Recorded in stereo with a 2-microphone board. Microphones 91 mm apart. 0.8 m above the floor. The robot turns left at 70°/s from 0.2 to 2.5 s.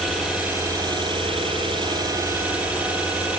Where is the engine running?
Straight ahead, 9.5 m; by 3.4 s 160° right, 9.5 m.